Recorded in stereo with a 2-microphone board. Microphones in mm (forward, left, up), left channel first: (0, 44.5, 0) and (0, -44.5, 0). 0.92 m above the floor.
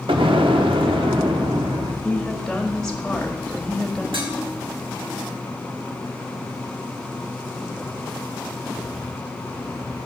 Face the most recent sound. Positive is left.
turn(degrees=-75)  # may be behind; listen again after turning